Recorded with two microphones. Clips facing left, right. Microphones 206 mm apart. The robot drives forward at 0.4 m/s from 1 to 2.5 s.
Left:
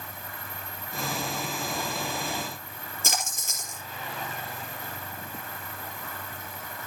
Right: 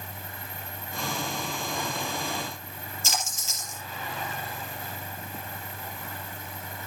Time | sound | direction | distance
3.0 | a splash | 50° left (ahead or behind) | 4.5 m